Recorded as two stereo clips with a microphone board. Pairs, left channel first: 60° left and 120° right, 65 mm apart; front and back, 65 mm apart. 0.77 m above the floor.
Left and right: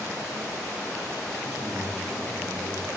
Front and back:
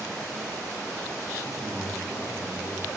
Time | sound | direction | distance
1.4 | a man speaking | 25° left | 4.5 m